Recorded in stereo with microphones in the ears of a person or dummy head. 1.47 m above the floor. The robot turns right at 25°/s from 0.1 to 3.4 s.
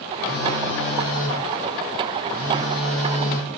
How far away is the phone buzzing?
About 3.5 m.